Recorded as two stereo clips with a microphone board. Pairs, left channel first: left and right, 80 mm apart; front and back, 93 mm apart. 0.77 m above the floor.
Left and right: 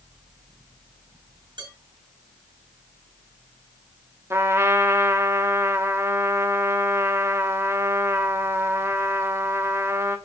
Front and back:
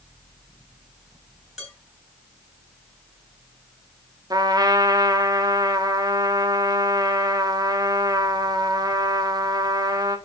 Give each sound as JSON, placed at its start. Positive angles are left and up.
{"t": 1.6, "sound": "dishes clattering", "azimuth_deg": -90, "distance_m": 5.5}
{"t": 4.3, "sound": "a trumpet", "azimuth_deg": -140, "distance_m": 1.3}